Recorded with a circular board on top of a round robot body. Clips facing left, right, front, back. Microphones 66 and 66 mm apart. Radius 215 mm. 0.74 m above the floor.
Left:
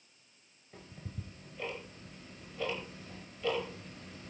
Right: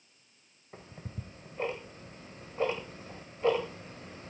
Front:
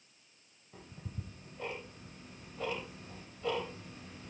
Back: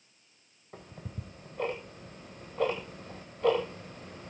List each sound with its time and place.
0.7 s ticking: 145° right, 0.5 m